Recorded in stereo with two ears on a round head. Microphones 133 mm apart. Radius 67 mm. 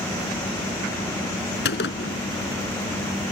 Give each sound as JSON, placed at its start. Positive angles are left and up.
{"t": 1.6, "sound": "a gunshot", "side_deg": 80}